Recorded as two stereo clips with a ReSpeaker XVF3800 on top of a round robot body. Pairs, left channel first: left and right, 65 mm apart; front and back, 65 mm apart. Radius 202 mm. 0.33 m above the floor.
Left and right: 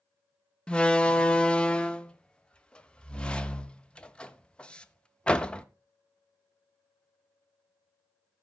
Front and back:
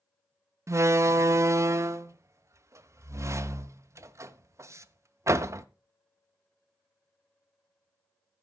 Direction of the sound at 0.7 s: 160° left.